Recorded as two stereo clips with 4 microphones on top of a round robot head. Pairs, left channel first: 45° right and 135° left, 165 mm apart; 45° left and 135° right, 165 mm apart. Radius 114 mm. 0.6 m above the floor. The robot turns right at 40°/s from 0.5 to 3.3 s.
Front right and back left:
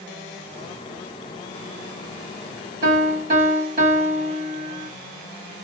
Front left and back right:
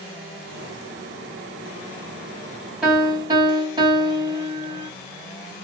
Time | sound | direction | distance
2.8 | a piano | 145° left | 2.5 m